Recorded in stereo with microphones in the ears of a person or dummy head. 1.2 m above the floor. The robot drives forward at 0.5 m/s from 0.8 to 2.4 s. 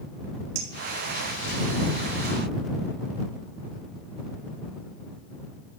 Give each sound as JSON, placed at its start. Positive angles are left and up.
{"t": 0.6, "sound": "a clink", "side_deg": -75, "distance_m": 3.0}